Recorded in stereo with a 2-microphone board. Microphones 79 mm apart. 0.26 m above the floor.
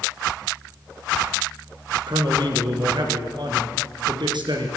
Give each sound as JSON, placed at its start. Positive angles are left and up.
{"t": 2.1, "sound": "a man speaking", "side_deg": -70, "distance_m": 4.5}